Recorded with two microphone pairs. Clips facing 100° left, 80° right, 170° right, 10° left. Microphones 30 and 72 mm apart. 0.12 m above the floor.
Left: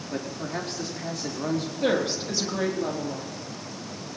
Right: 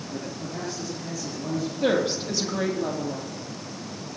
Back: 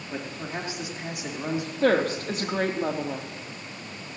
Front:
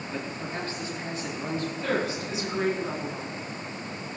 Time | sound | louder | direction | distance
0.1 | a man speaking | left 3 dB, back 1 dB | 115° left | 4.5 m
1.8 | a woman speaking | right 2 dB, back 9 dB | 170° right | 3.5 m